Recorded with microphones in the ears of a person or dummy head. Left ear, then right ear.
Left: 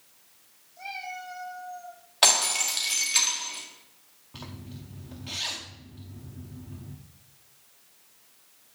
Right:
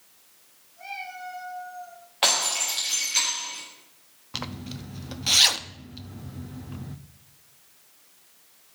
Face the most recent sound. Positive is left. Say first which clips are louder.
# right 10 dB
turn(degrees=-70)  # may be behind; listen again after turning